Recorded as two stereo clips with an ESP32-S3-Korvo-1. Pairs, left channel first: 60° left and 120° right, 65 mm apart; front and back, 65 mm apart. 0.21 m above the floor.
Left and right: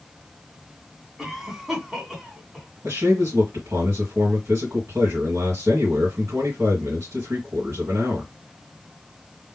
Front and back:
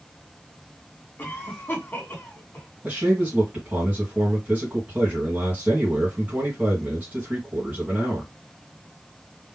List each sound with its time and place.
1.2 s a cough: 40° right, 2 m
2.8 s a man speaking: 125° right, 2 m